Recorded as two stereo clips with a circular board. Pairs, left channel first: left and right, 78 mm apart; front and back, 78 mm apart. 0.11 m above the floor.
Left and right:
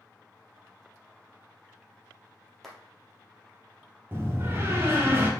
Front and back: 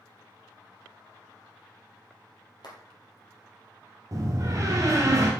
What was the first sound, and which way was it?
A clap, 5° left.